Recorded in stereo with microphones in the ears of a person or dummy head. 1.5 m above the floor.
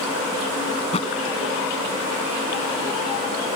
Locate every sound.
0.8 s a thud: 35° left (ahead or behind)